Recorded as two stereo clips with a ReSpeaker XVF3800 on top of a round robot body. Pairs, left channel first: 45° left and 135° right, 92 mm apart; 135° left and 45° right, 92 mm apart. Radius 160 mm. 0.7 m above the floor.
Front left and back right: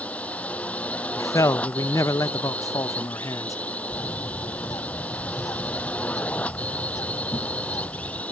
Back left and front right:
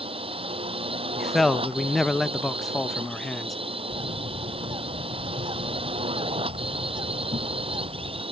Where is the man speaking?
50° left.